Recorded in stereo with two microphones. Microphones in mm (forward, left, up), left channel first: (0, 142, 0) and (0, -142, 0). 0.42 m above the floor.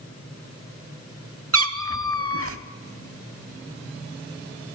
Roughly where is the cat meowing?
Right.